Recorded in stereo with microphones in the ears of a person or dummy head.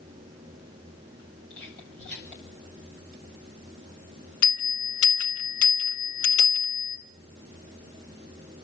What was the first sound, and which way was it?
Whispering, 65° left (ahead or behind).